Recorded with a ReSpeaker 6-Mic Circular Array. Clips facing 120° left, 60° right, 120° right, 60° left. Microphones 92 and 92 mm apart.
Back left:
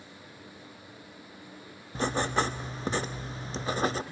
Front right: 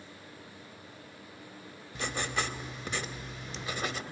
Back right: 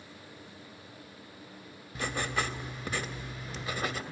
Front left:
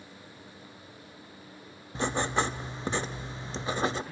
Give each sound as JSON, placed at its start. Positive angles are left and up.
{"t": 1.9, "sound": "writing", "azimuth_deg": 100, "distance_m": 0.6}